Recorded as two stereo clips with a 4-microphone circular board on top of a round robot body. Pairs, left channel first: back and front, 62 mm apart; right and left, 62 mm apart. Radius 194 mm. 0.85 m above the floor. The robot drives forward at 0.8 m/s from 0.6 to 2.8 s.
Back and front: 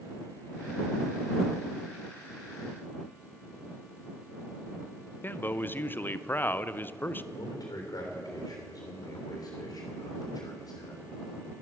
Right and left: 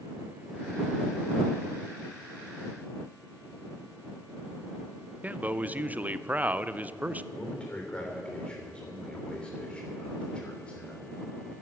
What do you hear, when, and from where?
5.2 s a man speaking: 145° left, 0.8 m
7.3 s a man speaking: 160° right, 3 m